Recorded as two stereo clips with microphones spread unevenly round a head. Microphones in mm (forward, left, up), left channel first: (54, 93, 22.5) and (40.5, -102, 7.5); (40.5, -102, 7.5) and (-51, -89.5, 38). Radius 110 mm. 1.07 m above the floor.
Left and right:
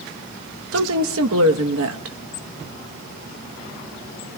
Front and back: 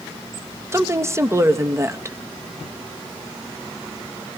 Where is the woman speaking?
120° right, 1.0 m.